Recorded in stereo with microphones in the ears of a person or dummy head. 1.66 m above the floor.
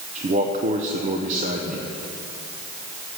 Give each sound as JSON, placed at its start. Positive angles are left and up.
{"t": 0.1, "sound": "a man speaking", "side_deg": -45, "distance_m": 0.8}